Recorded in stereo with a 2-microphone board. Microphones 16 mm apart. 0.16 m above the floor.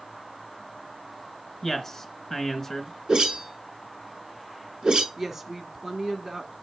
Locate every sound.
1.6 s a man speaking: 25° left (ahead or behind), 1.7 m
3.1 s a whoosh: 55° right (ahead or behind), 0.8 m
5.2 s a woman speaking: 20° right (ahead or behind), 1.1 m